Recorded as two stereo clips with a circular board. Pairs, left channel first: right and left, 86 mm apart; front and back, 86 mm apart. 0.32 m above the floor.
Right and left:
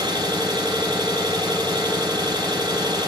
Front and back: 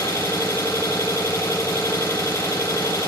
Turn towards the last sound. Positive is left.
turn(degrees=50)